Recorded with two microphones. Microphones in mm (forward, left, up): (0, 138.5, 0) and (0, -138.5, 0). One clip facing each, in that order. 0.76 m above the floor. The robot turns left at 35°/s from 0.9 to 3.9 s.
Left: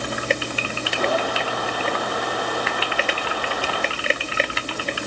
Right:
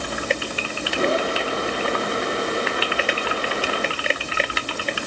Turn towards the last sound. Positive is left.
No sound to turn to.